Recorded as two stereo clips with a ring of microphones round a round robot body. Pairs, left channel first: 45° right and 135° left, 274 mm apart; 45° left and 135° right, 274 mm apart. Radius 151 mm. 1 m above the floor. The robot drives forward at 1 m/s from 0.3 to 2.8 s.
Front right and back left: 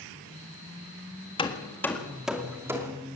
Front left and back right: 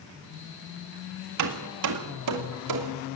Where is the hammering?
115° right, 1.8 m; by 2.9 s 145° right, 2.5 m.